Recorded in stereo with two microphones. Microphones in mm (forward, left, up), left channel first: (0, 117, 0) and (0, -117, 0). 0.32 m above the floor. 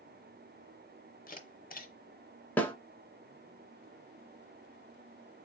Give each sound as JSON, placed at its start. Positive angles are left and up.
{"t": 1.3, "sound": "a camera shutter", "side_deg": 35, "distance_m": 0.7}
{"t": 2.6, "sound": "a snare drum", "side_deg": 5, "distance_m": 0.6}